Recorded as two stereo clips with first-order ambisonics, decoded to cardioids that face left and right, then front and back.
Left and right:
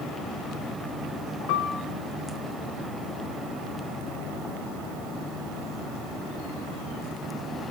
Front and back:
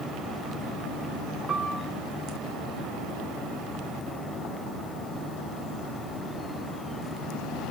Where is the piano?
115° left, 0.6 m.